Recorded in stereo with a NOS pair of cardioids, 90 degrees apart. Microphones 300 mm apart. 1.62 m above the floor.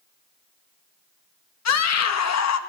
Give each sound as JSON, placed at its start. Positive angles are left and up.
{"t": 1.6, "sound": "a scream", "azimuth_deg": 65, "distance_m": 2.0}